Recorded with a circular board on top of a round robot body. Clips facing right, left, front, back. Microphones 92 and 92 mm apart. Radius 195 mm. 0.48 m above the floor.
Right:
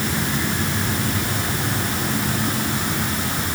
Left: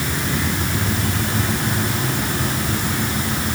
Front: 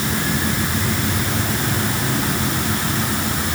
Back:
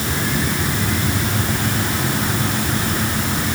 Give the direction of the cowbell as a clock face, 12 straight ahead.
No cowbell in this recording.